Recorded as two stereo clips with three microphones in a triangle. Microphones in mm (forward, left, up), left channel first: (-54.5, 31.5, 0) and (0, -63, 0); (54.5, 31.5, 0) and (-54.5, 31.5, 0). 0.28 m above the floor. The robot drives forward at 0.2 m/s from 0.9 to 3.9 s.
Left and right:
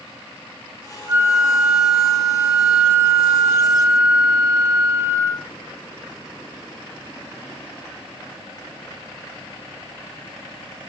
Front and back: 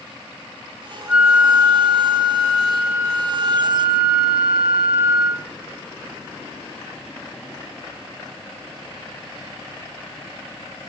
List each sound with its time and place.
1.1 s a flute: 110° right, 1.0 m; by 5.4 s 145° right, 1.2 m